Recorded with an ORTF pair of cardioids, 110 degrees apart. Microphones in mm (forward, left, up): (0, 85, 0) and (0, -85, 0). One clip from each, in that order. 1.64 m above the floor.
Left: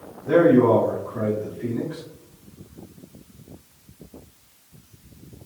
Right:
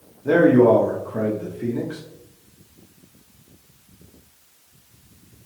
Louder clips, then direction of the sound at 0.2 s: Right 2 dB; 60° right.